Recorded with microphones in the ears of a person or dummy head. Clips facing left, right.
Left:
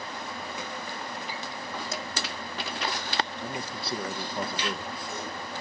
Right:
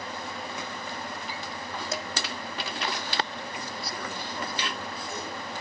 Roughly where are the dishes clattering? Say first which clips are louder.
Right 5 dB; right.